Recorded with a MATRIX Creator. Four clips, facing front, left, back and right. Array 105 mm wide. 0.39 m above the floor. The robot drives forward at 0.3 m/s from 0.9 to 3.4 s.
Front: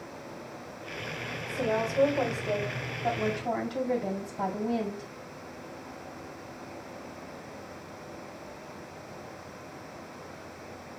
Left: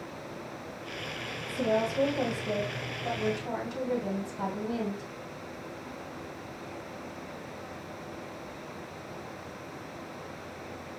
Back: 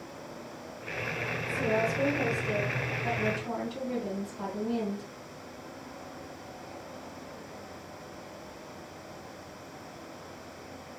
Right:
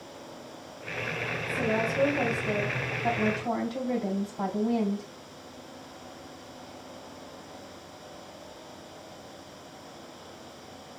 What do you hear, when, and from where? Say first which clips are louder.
1.5 s a woman speaking: left 1 dB, even; 40° right, 2.5 m; by 5.1 s 50° right, 2 m